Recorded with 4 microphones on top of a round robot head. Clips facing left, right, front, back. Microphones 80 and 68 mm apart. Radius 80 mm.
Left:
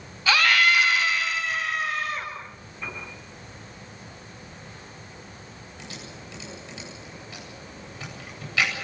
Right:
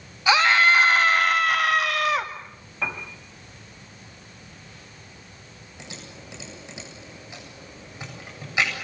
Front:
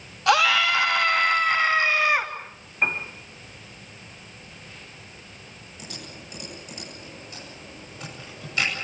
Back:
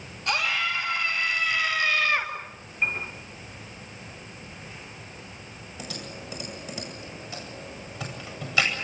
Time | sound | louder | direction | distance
0.3 | a scream | right 3 dB, front 8 dB | 20° right | 2.5 m
2.8 | a piano | right 6 dB, front 3 dB | 70° right | 4 m
5.8 | typing on a keyboard | even, back 3 dB | 165° right | 9 m